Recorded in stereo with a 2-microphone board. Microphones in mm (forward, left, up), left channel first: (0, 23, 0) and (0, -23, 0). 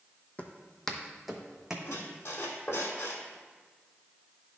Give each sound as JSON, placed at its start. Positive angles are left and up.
{"t": 0.4, "sound": "footsteps", "side_deg": 30, "distance_m": 1.0}
{"t": 1.9, "sound": "a squeak", "side_deg": 60, "distance_m": 1.6}